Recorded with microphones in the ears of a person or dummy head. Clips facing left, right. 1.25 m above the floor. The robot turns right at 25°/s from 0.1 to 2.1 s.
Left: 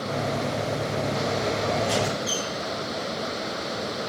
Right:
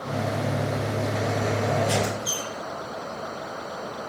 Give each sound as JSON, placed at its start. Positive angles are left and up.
{"t": 1.8, "sound": "a squeak", "side_deg": -5, "distance_m": 1.4}